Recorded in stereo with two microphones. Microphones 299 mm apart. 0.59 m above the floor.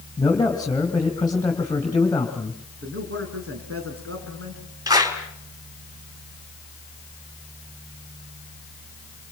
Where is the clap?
10° right (ahead or behind), 4 m.